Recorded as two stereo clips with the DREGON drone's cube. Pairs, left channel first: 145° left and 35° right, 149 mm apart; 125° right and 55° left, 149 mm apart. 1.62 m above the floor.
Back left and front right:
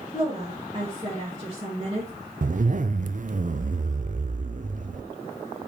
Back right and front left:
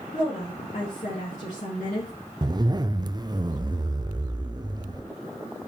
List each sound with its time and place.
0.1 s a woman speaking: 90° right, 2.5 m
2.4 s a zipper: 5° right, 0.5 m